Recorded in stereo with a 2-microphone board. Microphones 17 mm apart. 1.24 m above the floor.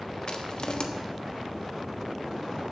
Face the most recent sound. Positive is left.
turn(degrees=45)  # may be behind; listen again after turning